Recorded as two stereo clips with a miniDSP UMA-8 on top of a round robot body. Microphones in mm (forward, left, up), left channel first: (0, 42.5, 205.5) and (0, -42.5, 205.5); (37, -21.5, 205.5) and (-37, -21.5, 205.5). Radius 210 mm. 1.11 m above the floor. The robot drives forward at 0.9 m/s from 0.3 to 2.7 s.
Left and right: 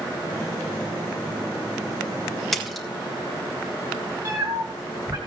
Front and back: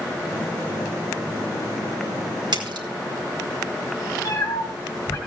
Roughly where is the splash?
Behind.